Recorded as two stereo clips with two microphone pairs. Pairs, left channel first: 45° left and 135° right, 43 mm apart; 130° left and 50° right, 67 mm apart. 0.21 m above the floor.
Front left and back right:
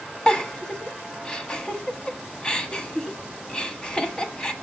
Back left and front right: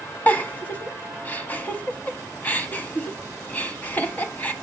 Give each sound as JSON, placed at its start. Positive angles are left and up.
{"t": 0.3, "sound": "a giggle", "azimuth_deg": 90, "distance_m": 0.8}